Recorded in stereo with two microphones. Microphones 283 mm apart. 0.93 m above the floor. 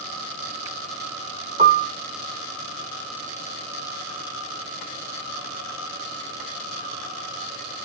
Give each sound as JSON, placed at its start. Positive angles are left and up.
{"t": 1.6, "sound": "a piano", "side_deg": -25, "distance_m": 0.9}